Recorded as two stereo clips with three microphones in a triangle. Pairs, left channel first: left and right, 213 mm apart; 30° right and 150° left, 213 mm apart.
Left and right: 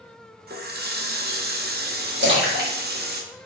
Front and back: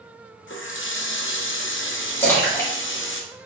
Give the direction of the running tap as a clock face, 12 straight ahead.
2 o'clock.